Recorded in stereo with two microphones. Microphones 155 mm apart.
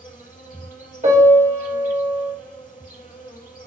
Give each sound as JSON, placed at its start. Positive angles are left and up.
{"t": 0.0, "sound": "an insect", "side_deg": 65, "distance_m": 4.0}
{"t": 1.0, "sound": "a piano", "side_deg": -55, "distance_m": 2.5}